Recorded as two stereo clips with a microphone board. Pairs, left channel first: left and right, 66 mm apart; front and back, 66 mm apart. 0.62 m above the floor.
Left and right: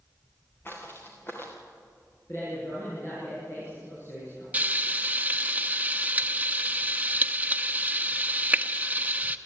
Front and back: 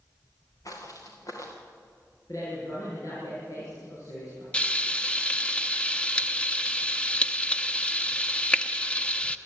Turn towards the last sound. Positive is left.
turn(degrees=-55)